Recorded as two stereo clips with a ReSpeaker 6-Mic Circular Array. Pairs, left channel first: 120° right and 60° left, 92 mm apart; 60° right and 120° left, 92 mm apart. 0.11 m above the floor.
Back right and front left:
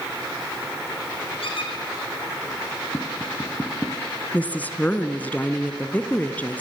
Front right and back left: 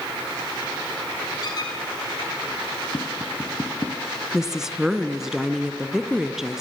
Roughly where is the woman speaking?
Behind.